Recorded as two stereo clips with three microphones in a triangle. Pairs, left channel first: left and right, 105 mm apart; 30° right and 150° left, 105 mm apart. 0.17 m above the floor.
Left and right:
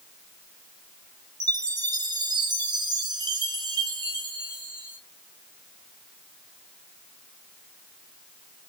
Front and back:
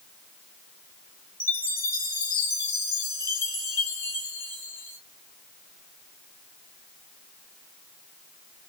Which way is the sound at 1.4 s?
65° right.